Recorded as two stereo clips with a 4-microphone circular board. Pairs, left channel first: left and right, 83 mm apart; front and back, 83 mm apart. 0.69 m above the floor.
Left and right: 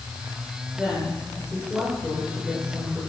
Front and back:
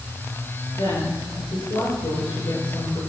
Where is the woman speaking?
10° right, 9.5 m.